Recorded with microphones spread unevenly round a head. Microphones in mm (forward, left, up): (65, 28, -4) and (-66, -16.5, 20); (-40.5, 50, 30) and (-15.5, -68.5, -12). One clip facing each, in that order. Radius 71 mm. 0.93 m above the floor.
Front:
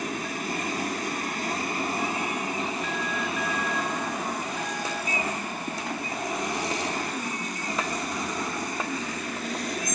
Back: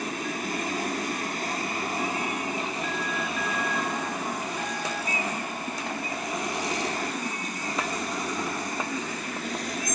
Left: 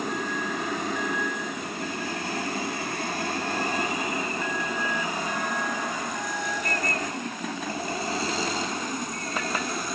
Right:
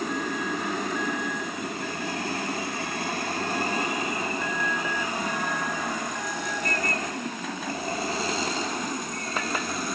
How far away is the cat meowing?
No cat meowing in this recording.